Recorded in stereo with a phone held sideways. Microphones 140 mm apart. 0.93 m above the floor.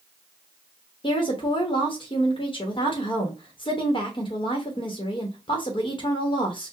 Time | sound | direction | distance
1.0 | a woman speaking | 35° left (ahead or behind) | 1.0 m